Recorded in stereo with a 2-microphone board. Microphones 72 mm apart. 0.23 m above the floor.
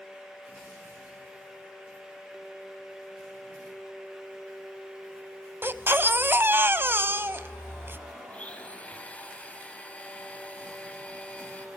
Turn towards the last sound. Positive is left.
turn(degrees=20)  # may be behind; listen again after turning